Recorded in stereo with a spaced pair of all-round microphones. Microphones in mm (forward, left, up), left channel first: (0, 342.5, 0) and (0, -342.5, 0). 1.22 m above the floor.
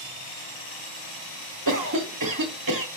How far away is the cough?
About 0.8 m.